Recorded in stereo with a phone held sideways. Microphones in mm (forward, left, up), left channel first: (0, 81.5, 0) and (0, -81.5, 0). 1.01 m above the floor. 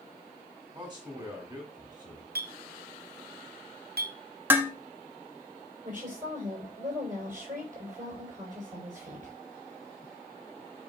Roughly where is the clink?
Right.